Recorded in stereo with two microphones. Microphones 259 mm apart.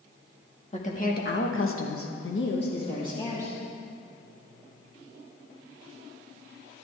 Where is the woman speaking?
25° left (ahead or behind), 2 m.